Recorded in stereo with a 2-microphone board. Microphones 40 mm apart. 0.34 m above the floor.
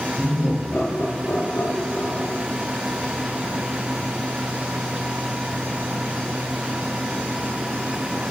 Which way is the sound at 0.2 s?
55° left (ahead or behind).